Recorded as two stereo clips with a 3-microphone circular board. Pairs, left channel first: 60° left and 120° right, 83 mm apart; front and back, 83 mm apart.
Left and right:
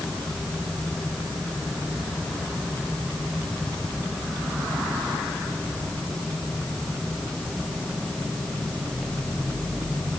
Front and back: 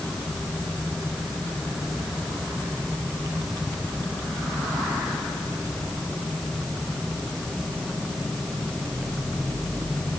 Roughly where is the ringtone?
I don't hear a ringtone.